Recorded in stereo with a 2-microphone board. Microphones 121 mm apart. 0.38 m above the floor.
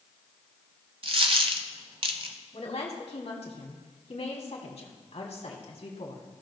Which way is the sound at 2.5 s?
65° left (ahead or behind).